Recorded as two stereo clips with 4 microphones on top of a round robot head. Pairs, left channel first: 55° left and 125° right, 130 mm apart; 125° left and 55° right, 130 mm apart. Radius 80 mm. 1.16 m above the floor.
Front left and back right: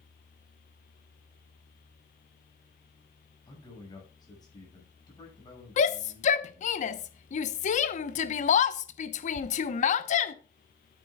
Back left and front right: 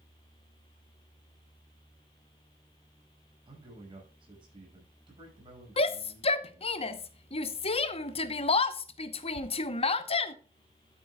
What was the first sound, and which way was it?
A man speaking, 5° right.